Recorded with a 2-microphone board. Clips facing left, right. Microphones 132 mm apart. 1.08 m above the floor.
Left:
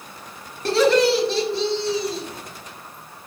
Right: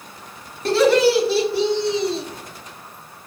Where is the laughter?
Centre (ahead or behind), 2.5 m; by 2.2 s 30° right (ahead or behind), 1.1 m.